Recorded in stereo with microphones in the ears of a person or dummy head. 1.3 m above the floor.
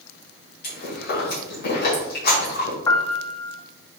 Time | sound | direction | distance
0.6 | chewing | 55° left (ahead or behind) | 2.5 m
2.9 | a piano | 15° left (ahead or behind) | 0.5 m